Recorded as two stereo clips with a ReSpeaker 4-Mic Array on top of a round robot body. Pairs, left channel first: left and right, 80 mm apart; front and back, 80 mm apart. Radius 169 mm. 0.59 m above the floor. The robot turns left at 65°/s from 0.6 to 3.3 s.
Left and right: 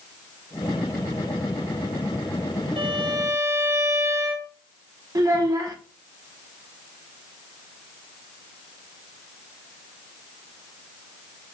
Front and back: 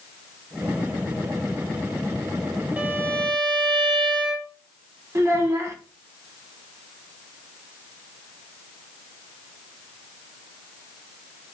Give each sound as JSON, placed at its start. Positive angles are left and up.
{"t": 2.8, "sound": "a violin", "azimuth_deg": -105, "distance_m": 1.2}
{"t": 5.2, "sound": "a child speaking", "azimuth_deg": -130, "distance_m": 1.3}